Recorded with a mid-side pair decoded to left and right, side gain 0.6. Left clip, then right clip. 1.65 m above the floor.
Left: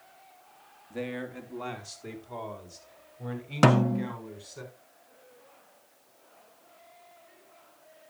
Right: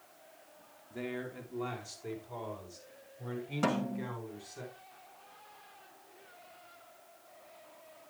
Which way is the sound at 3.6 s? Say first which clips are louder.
Left 11 dB; 60° left.